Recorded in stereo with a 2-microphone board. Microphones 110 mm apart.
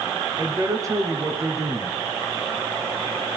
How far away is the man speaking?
About 1.6 m.